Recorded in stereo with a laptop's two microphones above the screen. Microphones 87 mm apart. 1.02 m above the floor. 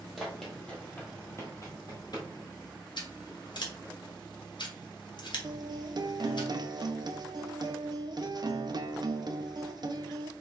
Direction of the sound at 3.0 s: 60° left (ahead or behind).